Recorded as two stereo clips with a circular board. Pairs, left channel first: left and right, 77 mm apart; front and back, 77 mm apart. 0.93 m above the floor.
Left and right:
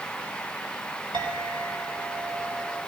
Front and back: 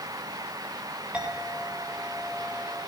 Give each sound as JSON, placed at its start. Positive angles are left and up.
{"t": 1.1, "sound": "a clink", "azimuth_deg": -105, "distance_m": 2.5}